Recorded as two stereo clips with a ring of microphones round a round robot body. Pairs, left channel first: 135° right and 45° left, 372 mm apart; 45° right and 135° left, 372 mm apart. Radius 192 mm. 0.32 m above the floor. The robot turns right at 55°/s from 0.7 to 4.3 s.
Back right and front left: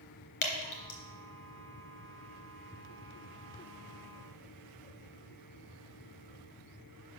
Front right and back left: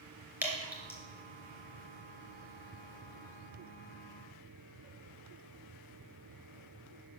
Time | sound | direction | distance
0.4 | dripping | 140° right | 2.5 m